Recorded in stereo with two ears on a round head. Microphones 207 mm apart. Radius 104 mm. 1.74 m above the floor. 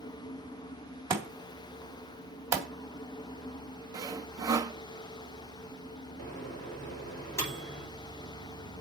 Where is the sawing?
15° right (ahead or behind), 0.6 m.